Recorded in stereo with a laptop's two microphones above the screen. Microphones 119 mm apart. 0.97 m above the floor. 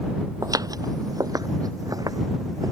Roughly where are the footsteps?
Right.